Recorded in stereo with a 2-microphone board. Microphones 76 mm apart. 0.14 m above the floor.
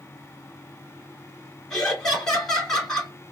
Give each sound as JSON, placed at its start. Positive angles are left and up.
{"t": 1.7, "sound": "laughter", "side_deg": 5, "distance_m": 1.5}